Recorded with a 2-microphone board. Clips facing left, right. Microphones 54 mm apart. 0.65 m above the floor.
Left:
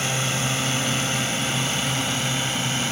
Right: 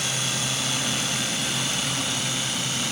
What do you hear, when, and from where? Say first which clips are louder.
0.0 s a drone: left 3 dB; 35° left (ahead or behind)